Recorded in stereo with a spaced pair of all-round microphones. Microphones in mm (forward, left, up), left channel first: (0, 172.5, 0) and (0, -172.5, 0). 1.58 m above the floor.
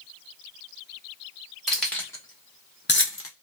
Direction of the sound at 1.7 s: Centre (ahead or behind).